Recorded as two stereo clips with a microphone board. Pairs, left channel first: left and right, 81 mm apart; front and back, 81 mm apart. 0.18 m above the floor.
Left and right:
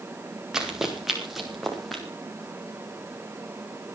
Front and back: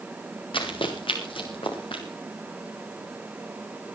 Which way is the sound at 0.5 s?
5° right.